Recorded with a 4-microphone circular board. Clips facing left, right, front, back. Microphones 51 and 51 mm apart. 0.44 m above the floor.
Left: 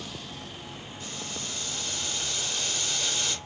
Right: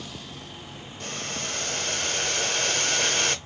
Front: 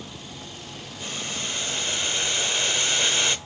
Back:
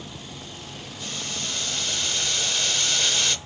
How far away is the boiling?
About 0.6 m.